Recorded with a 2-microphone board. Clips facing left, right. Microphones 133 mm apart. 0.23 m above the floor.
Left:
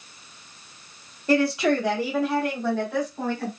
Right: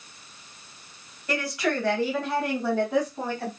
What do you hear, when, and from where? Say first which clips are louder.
1.3 s a woman speaking: left 7 dB; 30° left (ahead or behind), 1.1 m; by 3.5 s 25° right (ahead or behind), 1.4 m